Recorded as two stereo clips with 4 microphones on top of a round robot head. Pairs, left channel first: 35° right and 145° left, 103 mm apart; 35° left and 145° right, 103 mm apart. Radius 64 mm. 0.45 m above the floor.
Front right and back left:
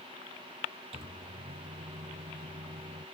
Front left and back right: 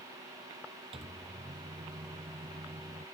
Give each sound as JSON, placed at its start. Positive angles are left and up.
{"t": 0.9, "sound": "a microwave", "azimuth_deg": 180}